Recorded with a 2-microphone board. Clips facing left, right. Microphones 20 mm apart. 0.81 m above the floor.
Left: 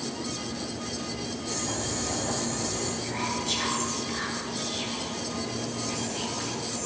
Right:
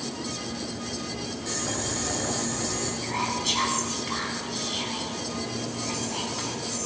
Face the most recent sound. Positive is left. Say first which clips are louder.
# right 6 dB
turn(degrees=-60)  # may be behind; listen again after turning